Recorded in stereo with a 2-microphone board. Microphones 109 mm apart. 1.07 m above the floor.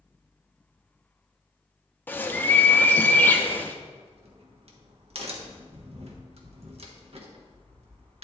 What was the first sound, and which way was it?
A bird, 20° left (ahead or behind).